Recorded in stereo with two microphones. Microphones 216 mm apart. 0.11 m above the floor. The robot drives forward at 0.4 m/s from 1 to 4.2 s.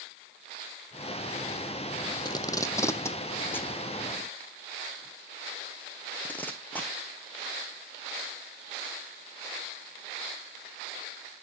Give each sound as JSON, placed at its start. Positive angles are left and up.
{"t": 2.2, "sound": "tape being pulled", "side_deg": 20, "distance_m": 0.5}